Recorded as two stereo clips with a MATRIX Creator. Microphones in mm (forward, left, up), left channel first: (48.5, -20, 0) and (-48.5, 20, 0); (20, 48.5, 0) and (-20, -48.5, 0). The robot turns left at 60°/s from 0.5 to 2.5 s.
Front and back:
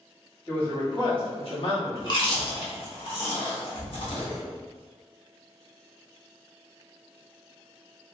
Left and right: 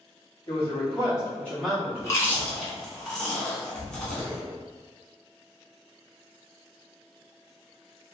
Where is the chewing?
15° left, 1.1 m; by 4.4 s 15° right, 1.1 m.